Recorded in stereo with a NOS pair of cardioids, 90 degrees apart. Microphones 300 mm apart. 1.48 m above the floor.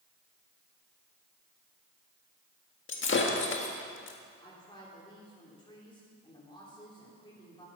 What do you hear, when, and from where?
2.9 s breaking glass: 40° left, 1.8 m
4.4 s a woman speaking: 15° left, 3.5 m